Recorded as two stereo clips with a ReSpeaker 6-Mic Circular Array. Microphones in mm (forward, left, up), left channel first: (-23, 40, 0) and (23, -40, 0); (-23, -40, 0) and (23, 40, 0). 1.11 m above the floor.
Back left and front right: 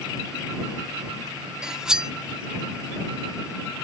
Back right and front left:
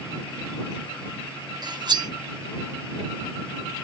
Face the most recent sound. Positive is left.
turn(degrees=25)